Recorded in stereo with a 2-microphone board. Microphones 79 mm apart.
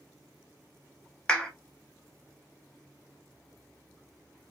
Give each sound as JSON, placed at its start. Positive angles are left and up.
{"t": 1.3, "sound": "a clap", "side_deg": 15, "distance_m": 0.7}